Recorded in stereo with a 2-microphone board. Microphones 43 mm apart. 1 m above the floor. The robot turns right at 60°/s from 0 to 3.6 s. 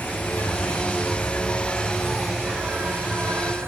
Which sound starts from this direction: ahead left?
An insect, at 0.0 s.